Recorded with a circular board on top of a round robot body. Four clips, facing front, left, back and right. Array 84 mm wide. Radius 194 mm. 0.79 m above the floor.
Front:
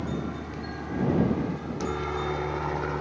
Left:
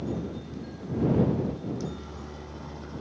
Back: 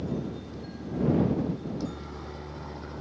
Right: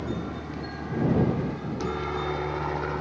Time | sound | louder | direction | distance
0.0 | a helicopter | right 1 dB, front 1 dB | 45° right | ?